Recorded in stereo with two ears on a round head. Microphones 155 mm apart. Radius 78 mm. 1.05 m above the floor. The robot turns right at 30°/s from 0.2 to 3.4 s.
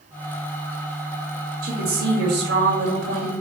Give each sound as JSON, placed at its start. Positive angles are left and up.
{"t": 1.6, "sound": "a woman speaking", "azimuth_deg": -120, "distance_m": 1.7}